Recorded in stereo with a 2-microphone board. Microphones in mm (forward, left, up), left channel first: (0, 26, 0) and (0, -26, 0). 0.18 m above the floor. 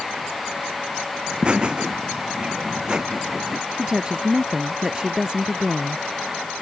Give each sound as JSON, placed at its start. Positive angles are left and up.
{"t": 1.3, "sound": "laughter", "side_deg": -20}
{"t": 3.8, "sound": "a woman speaking", "side_deg": -15}